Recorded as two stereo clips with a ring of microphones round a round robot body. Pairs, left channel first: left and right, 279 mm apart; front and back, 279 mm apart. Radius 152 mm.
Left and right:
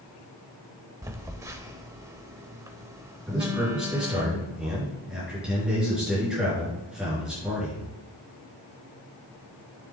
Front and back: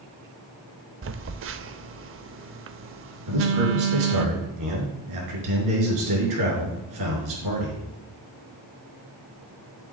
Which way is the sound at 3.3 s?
175° right.